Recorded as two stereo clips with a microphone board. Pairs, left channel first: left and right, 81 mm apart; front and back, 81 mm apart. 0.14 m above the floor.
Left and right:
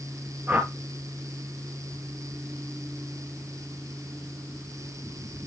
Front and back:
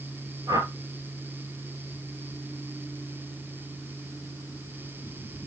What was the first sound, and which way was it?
A whoosh, 150° right.